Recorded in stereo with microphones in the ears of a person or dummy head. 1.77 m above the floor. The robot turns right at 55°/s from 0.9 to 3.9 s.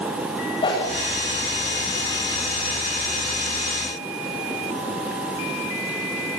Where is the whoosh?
25° left (ahead or behind), 9 m.